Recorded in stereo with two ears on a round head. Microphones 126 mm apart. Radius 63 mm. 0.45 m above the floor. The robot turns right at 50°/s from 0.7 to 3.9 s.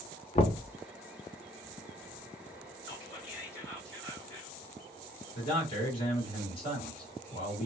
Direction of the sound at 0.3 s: 40° left (ahead or behind).